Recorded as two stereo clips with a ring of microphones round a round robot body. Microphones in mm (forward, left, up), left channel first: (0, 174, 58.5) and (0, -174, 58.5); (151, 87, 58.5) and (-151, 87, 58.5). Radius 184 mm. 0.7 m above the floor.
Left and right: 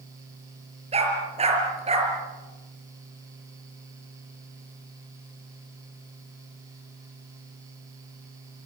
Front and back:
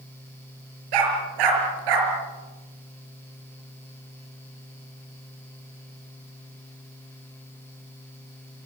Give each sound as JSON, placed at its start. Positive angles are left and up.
{"t": 0.9, "sound": "a dog barking", "azimuth_deg": -165, "distance_m": 5.0}